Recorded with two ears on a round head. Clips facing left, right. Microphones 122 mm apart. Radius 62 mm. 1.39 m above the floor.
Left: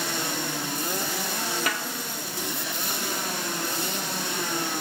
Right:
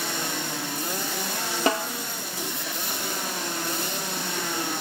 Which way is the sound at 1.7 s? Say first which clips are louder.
Right 6 dB; 25° right (ahead or behind).